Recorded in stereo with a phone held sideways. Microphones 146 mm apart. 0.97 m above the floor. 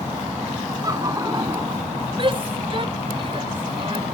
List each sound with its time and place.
0.8 s laughter: 25° right (ahead or behind); by 1.9 s 30° right (ahead or behind)
2.2 s a shout: 40° right (ahead or behind)